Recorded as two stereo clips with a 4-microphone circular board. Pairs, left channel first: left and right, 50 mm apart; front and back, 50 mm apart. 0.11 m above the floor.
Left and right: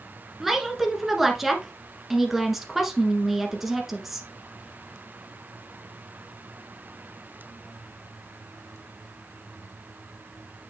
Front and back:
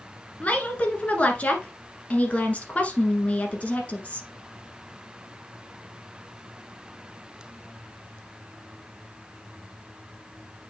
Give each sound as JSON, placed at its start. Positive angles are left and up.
{"t": 0.4, "sound": "a woman speaking", "azimuth_deg": -10, "distance_m": 1.4}